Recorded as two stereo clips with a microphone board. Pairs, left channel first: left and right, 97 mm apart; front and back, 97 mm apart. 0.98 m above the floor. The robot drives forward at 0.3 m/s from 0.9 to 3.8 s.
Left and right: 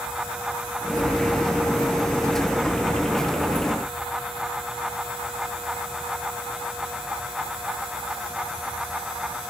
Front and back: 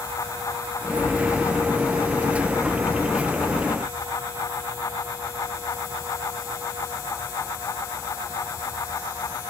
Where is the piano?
I don't hear a piano.